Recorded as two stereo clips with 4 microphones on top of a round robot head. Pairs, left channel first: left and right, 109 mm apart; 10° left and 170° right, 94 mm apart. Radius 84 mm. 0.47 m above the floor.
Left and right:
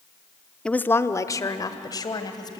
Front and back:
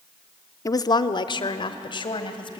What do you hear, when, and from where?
0.7 s a woman speaking: 15° left, 0.8 m; by 2.6 s 40° left, 3 m